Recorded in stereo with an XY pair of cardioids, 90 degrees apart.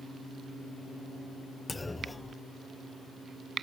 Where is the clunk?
15° left, 0.7 m.